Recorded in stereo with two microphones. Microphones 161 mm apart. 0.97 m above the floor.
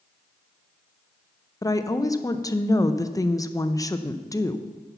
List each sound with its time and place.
1.6 s a woman speaking: 20° left (ahead or behind), 0.5 m